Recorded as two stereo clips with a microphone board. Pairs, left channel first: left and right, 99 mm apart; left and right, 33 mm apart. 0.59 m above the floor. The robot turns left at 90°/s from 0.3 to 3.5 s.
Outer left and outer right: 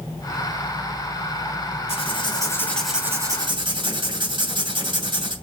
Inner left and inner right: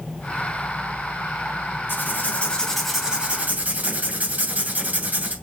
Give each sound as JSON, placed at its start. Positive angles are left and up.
{"t": 1.9, "sound": "writing", "azimuth_deg": 85, "distance_m": 2.5}